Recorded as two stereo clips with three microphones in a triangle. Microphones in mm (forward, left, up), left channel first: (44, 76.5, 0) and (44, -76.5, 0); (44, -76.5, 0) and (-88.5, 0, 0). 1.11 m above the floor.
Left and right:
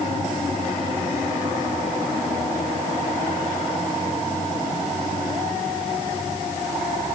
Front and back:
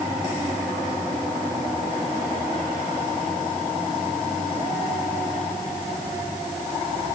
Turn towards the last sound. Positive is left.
No sound to turn to.